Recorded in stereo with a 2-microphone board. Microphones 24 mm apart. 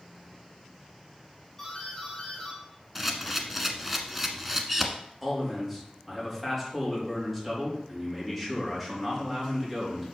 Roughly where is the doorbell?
Centre.